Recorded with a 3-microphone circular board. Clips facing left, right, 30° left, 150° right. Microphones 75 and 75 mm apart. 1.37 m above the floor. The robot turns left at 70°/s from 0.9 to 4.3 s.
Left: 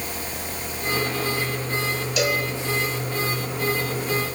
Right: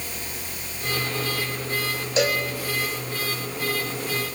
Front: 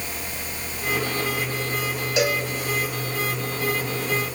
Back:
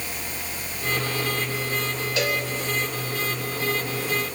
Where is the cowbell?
40° right, 3 m; by 2.4 s 60° right, 3 m.